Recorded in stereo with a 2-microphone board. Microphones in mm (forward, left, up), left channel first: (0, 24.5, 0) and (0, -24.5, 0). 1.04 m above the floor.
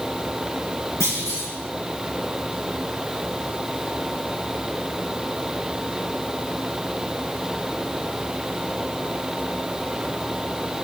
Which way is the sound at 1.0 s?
70° left (ahead or behind).